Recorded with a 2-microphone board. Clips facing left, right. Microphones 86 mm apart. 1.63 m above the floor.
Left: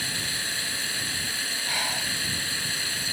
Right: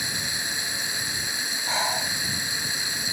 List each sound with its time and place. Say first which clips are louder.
0.0 s running water: right 1 dB; 20° right (ahead or behind)
1.7 s breathing: right 6 dB; 25° right (ahead or behind)